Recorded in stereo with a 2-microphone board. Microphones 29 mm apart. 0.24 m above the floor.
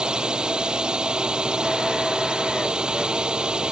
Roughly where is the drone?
Right.